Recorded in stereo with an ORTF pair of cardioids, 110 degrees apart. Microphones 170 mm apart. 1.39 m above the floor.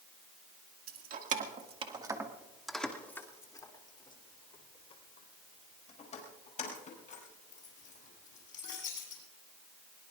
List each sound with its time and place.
0.9 s keys jangling: 60° right, 2 m; by 9.2 s 50° left, 9 m